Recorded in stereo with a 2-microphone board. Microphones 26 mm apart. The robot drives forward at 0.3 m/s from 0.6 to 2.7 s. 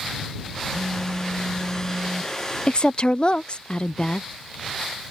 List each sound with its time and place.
0.7 s a phone buzzing: 85° right; by 2.3 s 80° right
2.7 s a woman speaking: 35° left (ahead or behind)